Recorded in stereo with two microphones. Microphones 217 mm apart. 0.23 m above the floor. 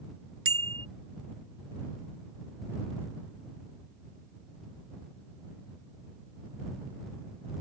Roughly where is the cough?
No cough in this recording.